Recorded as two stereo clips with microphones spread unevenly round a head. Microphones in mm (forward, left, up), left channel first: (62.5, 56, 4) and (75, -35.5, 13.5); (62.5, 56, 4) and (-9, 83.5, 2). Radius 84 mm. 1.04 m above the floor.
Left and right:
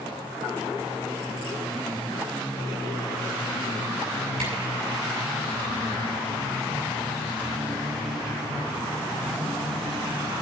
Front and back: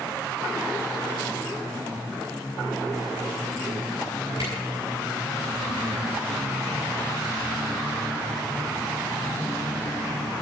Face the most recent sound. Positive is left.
turn(degrees=-130)